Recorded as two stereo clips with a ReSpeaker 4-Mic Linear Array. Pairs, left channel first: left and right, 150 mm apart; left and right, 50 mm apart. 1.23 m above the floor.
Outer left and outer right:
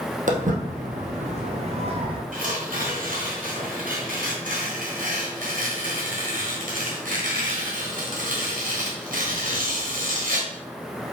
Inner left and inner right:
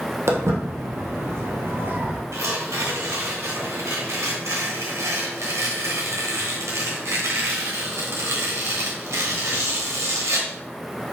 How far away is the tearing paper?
About 3 m.